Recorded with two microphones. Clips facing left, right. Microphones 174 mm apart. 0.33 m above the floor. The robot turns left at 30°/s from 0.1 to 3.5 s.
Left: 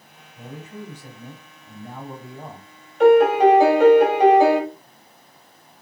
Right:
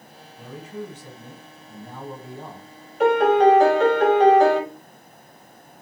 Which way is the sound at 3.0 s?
Centre (ahead or behind).